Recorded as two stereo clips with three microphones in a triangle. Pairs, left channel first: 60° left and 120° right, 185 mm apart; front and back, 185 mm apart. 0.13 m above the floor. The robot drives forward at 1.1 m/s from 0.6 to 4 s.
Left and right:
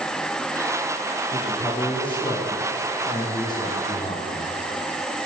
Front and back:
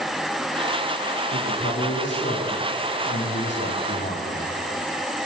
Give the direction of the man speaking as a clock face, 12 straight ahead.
12 o'clock.